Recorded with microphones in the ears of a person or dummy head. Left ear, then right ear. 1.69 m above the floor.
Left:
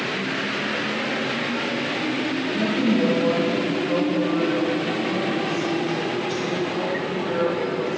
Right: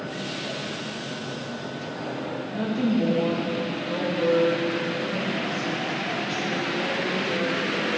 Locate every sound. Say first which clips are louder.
2.5 s a woman speaking: left 3 dB; 35° right (ahead or behind), 2.5 m; by 8.0 s 25° left (ahead or behind), 6 m